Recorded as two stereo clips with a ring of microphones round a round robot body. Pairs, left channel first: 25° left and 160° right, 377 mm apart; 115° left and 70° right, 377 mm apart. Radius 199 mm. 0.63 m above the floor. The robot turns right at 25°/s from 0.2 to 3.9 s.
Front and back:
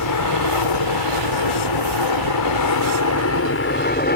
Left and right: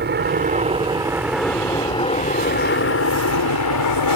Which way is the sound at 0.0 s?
10° right.